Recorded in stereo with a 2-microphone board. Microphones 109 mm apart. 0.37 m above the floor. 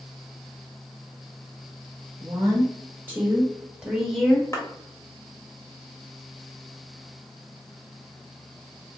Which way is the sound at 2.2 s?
25° right (ahead or behind).